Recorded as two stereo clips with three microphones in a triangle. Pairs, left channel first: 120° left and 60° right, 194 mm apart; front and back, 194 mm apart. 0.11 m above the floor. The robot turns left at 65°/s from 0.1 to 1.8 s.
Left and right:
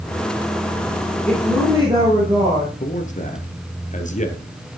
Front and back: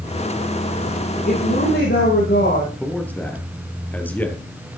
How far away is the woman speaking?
About 7 m.